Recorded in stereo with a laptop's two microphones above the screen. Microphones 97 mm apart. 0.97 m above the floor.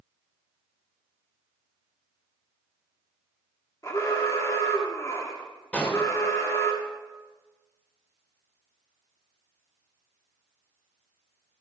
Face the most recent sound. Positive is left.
turn(degrees=15)  # may be behind; listen again after turning